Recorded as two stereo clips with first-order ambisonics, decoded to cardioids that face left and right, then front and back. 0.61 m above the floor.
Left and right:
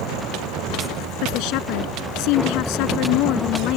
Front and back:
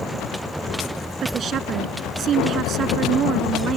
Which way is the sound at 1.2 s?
120° left.